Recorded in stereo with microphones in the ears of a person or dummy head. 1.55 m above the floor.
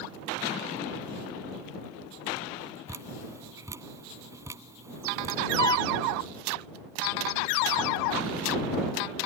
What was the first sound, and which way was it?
Dripping, 15° right (ahead or behind).